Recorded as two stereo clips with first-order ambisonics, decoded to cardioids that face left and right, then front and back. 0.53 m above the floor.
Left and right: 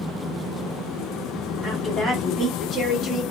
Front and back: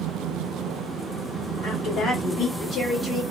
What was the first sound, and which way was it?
A woman speaking, straight ahead.